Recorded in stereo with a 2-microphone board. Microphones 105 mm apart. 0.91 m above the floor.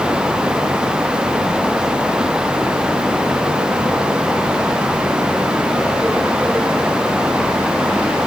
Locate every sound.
Only background noise.